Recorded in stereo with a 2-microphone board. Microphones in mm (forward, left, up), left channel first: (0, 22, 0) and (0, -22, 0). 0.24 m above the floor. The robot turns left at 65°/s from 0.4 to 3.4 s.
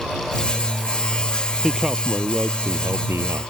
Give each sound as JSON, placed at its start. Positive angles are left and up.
{"t": 1.6, "sound": "a man speaking", "azimuth_deg": 0}